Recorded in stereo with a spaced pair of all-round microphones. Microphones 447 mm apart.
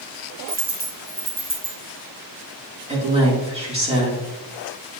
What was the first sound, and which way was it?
A dropped coin, 65° right (ahead or behind).